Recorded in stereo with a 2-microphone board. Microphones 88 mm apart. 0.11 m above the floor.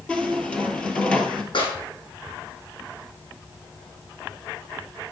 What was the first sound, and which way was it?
A squeak, 15° left (ahead or behind).